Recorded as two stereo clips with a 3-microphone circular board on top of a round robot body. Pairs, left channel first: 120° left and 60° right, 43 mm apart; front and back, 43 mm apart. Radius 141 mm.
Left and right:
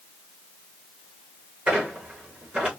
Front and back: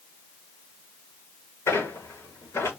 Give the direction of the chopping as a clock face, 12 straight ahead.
No chopping in this recording.